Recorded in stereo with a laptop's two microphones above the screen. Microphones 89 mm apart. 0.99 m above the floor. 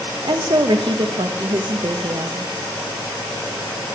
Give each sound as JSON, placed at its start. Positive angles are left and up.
{"t": 0.2, "sound": "a woman speaking", "side_deg": -65, "distance_m": 0.6}